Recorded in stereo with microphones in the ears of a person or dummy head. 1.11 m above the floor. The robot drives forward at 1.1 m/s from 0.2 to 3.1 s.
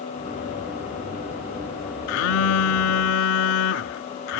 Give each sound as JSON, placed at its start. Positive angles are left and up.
{"t": 2.1, "sound": "a phone buzzing", "side_deg": 70}